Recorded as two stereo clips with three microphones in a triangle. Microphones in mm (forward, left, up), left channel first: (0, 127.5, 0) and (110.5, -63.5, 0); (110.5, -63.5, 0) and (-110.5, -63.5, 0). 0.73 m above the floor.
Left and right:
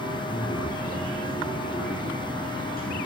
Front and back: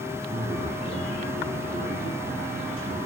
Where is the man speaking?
165° left, 5 m.